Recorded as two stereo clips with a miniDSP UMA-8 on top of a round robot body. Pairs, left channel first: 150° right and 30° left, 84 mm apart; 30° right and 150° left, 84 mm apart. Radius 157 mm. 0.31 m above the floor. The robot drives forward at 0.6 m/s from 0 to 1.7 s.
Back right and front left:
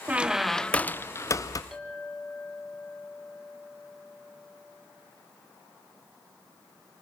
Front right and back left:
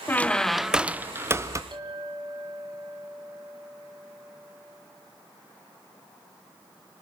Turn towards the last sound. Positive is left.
turn(degrees=120)